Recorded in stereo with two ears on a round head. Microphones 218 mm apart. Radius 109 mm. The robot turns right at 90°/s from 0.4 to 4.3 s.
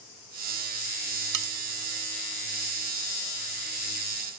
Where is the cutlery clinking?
80° right; by 1.5 s 75° right (ahead or behind).